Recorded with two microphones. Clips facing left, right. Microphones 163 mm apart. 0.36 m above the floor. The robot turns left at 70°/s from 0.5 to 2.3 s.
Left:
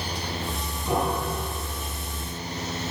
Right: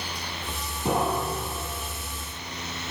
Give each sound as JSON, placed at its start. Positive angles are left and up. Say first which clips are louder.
{"t": 0.8, "sound": "a piano", "louder": "right 1 dB", "azimuth_deg": -105, "distance_m": 4.5}